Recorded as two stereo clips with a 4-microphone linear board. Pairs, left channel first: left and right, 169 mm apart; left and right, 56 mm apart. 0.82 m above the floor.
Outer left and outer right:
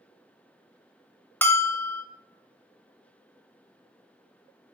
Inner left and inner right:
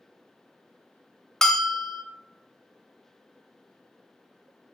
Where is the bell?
10° left (ahead or behind), 0.7 m.